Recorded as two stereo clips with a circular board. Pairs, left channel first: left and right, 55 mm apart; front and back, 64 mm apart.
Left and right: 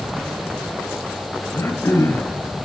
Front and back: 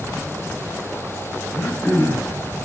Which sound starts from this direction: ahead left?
Throat clearing, at 1.5 s.